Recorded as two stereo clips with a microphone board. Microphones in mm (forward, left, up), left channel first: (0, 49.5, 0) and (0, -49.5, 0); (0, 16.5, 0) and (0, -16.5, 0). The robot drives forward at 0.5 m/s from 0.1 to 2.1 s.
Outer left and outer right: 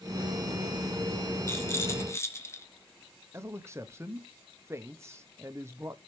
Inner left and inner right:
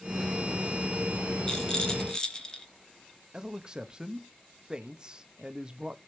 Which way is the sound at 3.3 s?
25° right (ahead or behind).